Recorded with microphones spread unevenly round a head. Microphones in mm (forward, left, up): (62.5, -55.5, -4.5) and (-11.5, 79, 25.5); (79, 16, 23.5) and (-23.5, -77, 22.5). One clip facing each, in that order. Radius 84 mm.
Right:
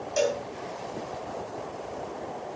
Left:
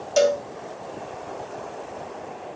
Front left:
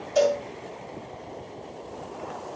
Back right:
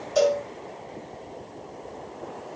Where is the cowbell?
135° left, 1.9 m.